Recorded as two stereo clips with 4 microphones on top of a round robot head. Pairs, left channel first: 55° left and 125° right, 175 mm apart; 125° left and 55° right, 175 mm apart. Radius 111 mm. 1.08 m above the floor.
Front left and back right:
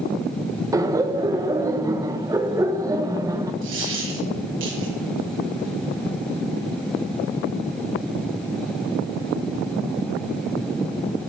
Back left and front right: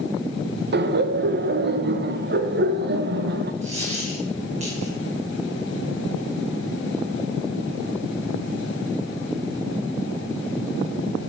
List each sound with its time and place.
0.7 s laughter: 50° right, 1.1 m
3.6 s a dropped coin: 110° right, 6.5 m